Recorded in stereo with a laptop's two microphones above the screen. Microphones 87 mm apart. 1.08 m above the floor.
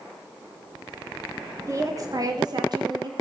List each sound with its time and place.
1.7 s a woman speaking: 35° right (ahead or behind), 1.5 m; by 3.1 s 55° right (ahead or behind), 2 m